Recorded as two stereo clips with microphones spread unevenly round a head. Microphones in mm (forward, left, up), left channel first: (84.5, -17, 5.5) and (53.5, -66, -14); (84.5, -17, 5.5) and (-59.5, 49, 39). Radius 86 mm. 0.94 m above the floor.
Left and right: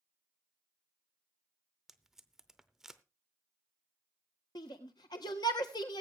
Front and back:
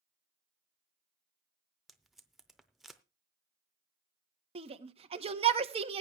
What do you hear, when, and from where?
1.9 s tape being pulled: 110° left, 0.6 m
4.5 s a shout: 100° left, 1.4 m